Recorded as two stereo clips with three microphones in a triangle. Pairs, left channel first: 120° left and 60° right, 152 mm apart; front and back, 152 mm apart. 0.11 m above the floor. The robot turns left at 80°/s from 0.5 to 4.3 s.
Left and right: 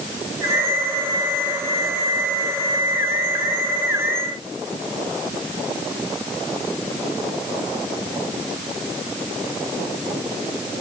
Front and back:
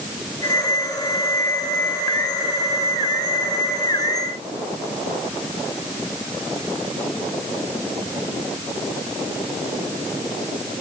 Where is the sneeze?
No sneeze in this recording.